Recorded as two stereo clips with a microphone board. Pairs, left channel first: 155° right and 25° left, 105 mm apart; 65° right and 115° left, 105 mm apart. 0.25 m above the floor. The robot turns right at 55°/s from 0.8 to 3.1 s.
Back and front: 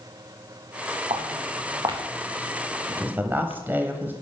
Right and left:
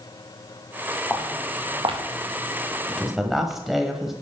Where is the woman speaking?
15° left, 1.1 m; by 4.1 s 30° left, 1.1 m.